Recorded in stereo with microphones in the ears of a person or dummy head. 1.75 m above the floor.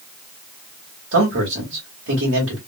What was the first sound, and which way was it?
A man speaking, 65° right (ahead or behind).